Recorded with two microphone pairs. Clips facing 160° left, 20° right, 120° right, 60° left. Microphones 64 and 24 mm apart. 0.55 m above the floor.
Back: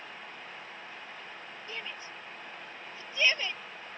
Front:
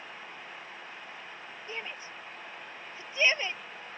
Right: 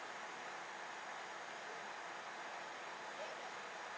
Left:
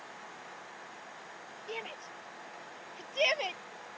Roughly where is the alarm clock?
I don't hear an alarm clock.